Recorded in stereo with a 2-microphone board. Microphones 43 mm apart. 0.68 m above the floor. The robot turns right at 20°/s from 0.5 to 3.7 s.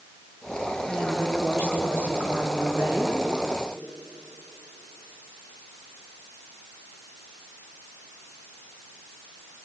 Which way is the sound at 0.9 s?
150° right.